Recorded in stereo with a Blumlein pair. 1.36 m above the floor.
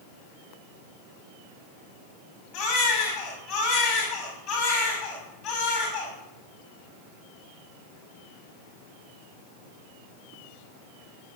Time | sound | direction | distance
2.5 | a baby crying | 40° left | 6 m